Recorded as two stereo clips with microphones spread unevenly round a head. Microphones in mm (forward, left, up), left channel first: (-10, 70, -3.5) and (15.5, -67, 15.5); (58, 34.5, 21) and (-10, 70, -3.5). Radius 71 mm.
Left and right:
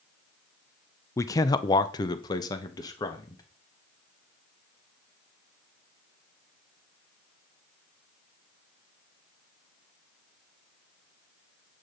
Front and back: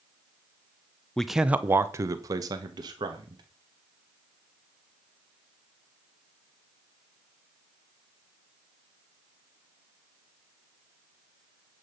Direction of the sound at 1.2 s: 80° left.